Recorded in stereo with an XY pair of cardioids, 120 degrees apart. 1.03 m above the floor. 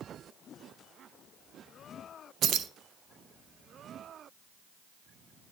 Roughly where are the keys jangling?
Ahead right.